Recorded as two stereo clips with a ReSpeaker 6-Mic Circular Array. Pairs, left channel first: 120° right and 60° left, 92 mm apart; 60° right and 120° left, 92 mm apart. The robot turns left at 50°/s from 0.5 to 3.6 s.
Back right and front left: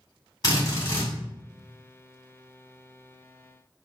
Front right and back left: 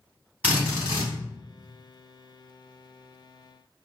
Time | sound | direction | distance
0.4 | a drill | 170° right | 2.5 m